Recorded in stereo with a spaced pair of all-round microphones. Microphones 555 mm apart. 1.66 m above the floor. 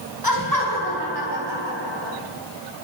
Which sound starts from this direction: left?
Laughter, at 0.2 s.